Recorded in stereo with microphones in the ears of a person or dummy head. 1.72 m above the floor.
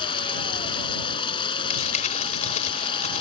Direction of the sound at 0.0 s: 25° left (ahead or behind).